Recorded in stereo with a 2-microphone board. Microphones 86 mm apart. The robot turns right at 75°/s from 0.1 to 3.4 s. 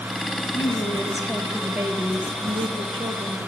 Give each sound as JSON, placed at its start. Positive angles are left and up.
{"t": 0.5, "sound": "a woman speaking", "azimuth_deg": 110, "distance_m": 1.3}